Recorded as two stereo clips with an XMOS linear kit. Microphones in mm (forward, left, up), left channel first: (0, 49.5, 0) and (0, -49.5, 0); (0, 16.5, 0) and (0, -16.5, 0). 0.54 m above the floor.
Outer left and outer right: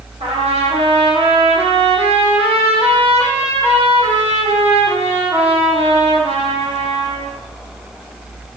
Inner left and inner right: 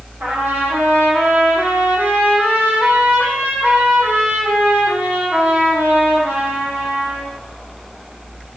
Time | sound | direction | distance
0.2 | a trumpet | 90° right | 9 m